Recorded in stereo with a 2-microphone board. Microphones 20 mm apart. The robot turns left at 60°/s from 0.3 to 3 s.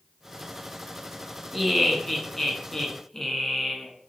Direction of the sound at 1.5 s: Centre (ahead or behind).